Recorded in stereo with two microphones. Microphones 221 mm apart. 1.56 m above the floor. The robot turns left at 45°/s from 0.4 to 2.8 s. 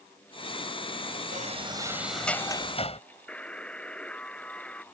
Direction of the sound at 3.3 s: 5° left (ahead or behind).